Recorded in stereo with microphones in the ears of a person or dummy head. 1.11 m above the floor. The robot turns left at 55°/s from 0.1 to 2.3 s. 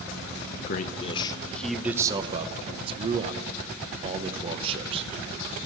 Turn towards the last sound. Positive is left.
turn(degrees=-35)